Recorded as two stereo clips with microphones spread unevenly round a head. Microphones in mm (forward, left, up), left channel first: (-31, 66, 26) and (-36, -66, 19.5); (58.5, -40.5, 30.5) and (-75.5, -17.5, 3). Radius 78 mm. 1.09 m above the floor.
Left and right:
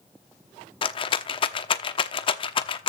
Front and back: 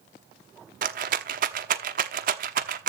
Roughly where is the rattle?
Behind left.